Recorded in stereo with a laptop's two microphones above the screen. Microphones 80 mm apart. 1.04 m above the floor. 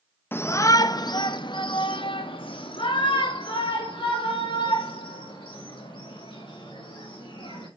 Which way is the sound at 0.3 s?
25° left (ahead or behind).